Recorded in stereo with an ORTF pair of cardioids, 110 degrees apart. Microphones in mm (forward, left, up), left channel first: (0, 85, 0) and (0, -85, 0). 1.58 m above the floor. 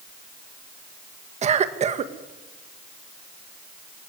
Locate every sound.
1.4 s a cough: 40° right, 2 m